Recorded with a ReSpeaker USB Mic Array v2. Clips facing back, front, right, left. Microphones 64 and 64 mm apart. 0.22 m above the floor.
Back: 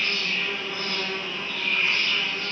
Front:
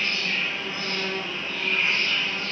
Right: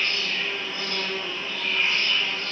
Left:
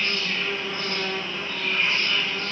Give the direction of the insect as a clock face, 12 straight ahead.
10 o'clock.